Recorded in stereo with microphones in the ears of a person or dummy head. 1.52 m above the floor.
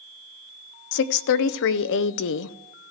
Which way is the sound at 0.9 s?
60° left (ahead or behind).